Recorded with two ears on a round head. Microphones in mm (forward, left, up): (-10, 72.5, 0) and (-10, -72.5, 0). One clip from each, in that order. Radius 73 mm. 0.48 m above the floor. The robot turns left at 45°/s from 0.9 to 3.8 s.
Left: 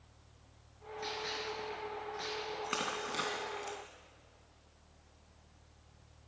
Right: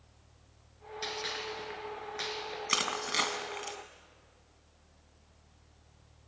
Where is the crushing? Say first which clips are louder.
Right 8 dB; 80° right, 2 m; by 3.8 s 35° right (ahead or behind), 2 m.